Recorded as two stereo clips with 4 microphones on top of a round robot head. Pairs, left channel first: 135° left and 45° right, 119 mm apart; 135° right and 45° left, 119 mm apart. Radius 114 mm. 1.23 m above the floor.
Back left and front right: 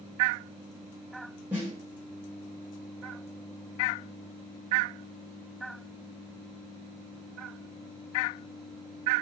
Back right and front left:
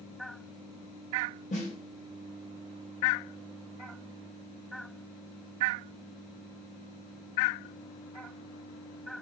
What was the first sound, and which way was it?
A snare drum, 125° right.